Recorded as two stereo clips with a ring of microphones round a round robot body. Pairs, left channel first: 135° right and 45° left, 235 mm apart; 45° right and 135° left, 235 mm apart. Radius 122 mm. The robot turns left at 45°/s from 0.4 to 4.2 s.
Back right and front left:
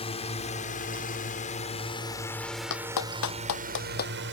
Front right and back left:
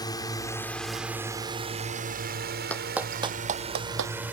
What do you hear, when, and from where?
0.0 s a drone: 100° right; by 4.3 s 55° left
2.7 s a clap: 130° right; by 4.2 s 165° left